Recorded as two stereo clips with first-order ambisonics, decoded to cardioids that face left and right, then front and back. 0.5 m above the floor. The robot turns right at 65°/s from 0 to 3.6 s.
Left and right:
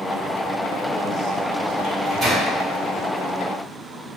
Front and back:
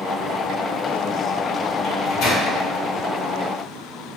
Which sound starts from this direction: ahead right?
A microwave, at 1.8 s.